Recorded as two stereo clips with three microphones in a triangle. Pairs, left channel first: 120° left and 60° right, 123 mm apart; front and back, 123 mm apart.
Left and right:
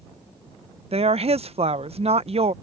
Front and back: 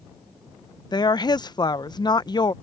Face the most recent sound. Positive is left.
turn(degrees=-50)